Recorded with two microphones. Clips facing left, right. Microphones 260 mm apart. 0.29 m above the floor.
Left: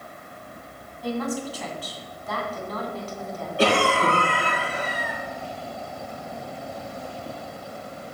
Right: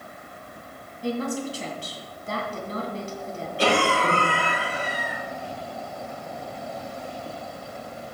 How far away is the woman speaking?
About 2.5 m.